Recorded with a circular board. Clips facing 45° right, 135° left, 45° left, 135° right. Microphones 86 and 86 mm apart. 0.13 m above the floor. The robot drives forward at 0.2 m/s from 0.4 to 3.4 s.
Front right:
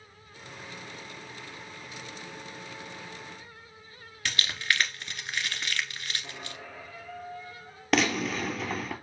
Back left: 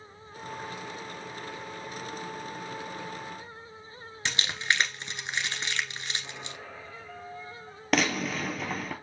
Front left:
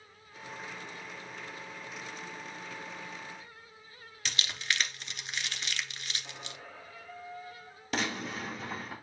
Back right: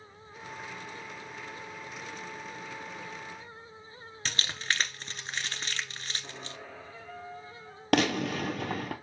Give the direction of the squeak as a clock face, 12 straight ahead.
4 o'clock.